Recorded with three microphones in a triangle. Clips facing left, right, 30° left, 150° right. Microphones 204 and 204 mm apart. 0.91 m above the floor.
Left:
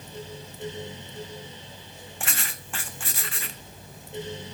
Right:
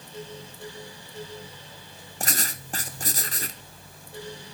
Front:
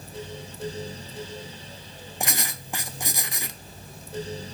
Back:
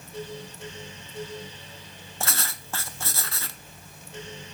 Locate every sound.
2.2 s writing: 45° right, 0.5 m